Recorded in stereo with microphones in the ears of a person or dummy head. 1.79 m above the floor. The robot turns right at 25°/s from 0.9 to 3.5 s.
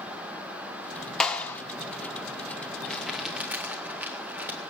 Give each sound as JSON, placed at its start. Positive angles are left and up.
{"t": 1.2, "sound": "a clap", "side_deg": 0, "distance_m": 1.4}
{"t": 2.9, "sound": "crumpling", "side_deg": 5, "distance_m": 2.0}